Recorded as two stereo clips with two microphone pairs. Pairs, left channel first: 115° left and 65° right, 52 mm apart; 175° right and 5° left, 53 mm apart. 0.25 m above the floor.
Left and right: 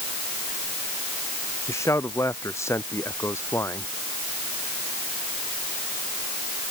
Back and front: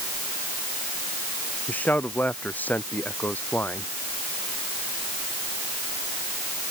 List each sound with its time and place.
1.7 s a man speaking: 125° left; by 3.9 s 130° left